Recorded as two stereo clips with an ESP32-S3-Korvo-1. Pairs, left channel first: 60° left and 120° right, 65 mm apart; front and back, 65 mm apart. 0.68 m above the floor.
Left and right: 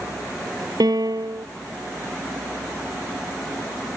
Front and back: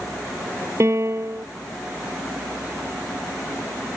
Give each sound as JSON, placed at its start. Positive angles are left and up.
{"t": 0.8, "sound": "a piano", "azimuth_deg": -135}